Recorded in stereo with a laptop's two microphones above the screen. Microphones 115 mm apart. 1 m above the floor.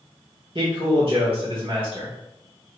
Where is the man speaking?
55° right (ahead or behind), 1.3 m.